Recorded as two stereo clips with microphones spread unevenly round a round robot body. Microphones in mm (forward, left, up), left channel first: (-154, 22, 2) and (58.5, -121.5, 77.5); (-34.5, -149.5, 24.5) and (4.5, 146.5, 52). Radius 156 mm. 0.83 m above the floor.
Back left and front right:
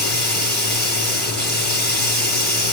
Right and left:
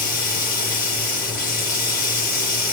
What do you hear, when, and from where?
0.0 s running water: 160° right, 4 m